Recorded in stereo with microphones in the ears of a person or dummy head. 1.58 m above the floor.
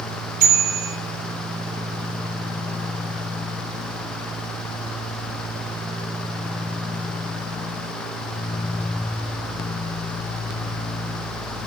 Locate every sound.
0.4 s a bicycle bell: 50° right (ahead or behind), 3.5 m